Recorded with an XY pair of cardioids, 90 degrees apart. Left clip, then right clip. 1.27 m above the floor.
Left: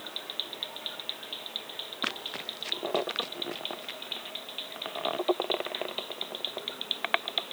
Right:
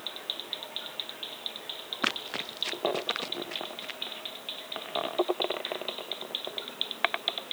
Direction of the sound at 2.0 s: 35° right.